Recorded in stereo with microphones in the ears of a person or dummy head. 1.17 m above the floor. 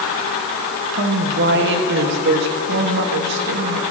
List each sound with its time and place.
0.9 s a woman speaking: 65° right (ahead or behind), 1.6 m